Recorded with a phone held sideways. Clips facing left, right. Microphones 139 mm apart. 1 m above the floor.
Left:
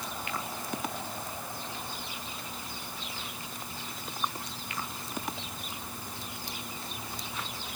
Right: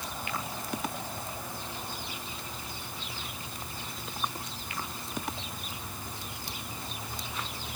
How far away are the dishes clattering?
I don't hear dishes clattering.